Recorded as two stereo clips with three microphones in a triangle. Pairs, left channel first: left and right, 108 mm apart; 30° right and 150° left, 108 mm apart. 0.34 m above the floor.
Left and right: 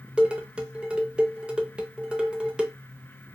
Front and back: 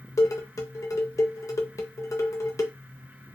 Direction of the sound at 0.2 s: 15° right.